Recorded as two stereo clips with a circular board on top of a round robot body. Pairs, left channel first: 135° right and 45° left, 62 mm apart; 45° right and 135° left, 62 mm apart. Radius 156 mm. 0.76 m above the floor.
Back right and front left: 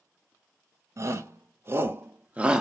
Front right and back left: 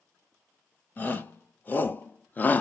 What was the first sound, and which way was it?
A shout, 15° left.